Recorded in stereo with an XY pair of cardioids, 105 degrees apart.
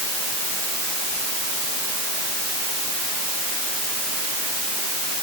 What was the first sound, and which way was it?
Only background noise.